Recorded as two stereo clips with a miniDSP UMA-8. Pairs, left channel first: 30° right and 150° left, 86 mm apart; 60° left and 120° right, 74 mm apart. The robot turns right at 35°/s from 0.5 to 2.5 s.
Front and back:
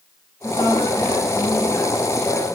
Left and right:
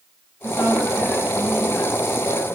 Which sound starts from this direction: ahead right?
A woman speaking, at 0.4 s.